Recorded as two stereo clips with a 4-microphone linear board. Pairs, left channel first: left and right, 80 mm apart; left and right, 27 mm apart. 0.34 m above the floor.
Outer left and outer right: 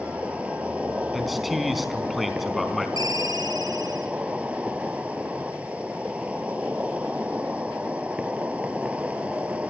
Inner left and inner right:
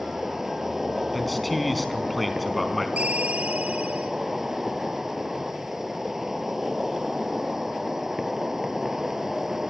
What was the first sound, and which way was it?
An insect, 15° right (ahead or behind).